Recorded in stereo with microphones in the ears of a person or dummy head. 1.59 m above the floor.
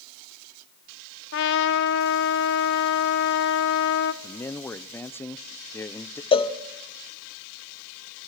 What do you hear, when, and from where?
1.3 s a trumpet: 65° left (ahead or behind), 1.2 m
4.2 s a man speaking: 10° left (ahead or behind), 0.8 m
6.3 s a cowbell: 25° left (ahead or behind), 1.1 m